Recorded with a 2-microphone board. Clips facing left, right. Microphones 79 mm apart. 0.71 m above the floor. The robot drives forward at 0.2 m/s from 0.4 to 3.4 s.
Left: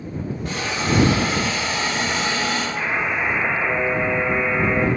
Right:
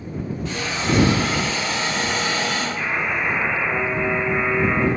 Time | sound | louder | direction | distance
0.5 | a hiss | even | 50° left (ahead or behind) | 1.1 m
2.8 | a buzzer | left 1 dB | 35° left (ahead or behind) | 0.9 m